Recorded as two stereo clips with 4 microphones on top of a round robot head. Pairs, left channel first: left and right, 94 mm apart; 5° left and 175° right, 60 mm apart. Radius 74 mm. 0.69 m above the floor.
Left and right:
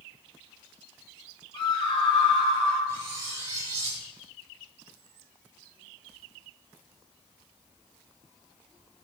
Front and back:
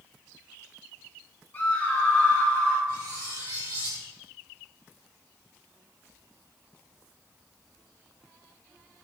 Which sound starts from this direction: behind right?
Cutlery clinking, at 2.9 s.